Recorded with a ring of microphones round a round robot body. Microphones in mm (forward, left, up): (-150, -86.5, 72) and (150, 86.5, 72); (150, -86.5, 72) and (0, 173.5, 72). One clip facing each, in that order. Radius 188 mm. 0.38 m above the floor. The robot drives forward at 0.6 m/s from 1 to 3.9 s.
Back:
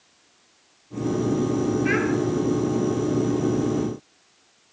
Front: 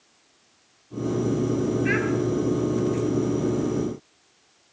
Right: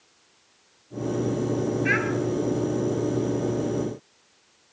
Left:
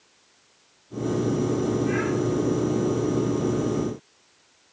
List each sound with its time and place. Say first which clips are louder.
1.9 s a child speaking: back 2 dB, left 2 dB; 55° right, 6.5 m